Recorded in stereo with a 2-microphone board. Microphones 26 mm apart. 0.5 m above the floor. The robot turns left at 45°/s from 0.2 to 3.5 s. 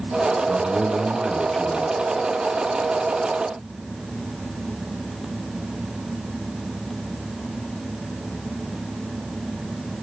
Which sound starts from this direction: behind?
A man speaking, at 0.5 s.